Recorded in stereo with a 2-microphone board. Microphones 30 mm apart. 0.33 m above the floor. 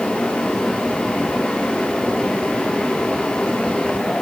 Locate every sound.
Only background noise.